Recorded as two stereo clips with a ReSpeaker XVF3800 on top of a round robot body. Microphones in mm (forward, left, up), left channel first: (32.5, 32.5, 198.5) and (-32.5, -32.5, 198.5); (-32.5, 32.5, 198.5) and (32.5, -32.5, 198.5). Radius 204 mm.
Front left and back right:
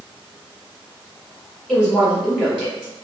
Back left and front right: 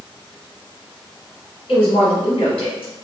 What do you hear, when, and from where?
1.7 s a woman speaking: 135° left, 1.5 m